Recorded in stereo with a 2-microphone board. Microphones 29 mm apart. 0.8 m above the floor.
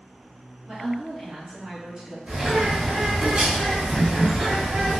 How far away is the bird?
About 1.1 m.